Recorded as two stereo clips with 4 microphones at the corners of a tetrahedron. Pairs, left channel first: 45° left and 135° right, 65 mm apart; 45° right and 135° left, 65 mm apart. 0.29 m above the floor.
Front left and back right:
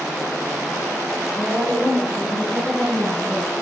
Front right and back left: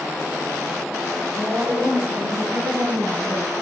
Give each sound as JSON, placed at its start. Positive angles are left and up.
{"t": 1.4, "sound": "a woman speaking", "azimuth_deg": 130, "distance_m": 4.5}